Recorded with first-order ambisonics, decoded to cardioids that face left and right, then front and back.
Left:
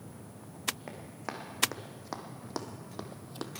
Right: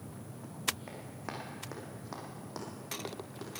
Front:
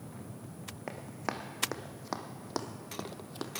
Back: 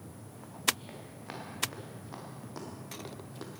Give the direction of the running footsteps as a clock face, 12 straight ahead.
12 o'clock.